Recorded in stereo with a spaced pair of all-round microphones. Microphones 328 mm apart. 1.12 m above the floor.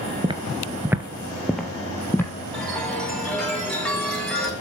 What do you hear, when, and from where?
0.2 s footsteps: 15° right (ahead or behind), 1.2 m; by 2.3 s 5° left (ahead or behind), 2.5 m
2.5 s a chime: centre (ahead or behind), 4.5 m